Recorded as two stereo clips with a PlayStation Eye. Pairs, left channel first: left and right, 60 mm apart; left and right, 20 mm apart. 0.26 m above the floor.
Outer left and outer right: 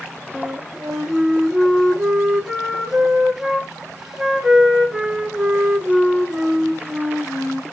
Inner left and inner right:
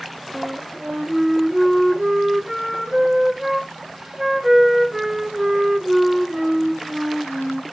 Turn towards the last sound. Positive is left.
turn(degrees=-10)  # may be behind; listen again after turning